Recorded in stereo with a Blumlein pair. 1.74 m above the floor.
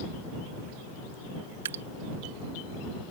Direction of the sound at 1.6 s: 60° right.